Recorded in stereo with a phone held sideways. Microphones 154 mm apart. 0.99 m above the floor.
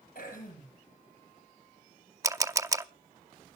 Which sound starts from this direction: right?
A camera shutter, at 2.2 s.